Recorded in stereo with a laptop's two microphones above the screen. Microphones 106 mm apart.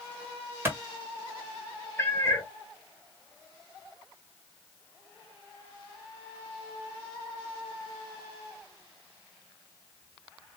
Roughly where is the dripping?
I don't hear dripping.